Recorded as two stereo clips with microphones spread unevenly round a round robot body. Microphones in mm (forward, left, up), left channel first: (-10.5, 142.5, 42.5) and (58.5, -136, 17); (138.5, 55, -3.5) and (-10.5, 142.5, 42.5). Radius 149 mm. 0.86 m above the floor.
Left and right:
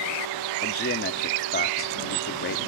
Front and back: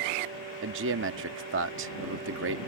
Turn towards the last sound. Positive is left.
turn(degrees=165)